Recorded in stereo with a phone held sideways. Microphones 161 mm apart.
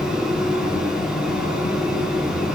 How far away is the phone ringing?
I don't hear a phone ringing.